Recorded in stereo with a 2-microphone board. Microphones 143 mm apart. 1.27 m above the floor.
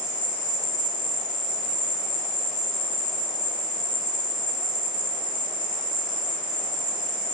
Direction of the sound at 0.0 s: 60° right (ahead or behind).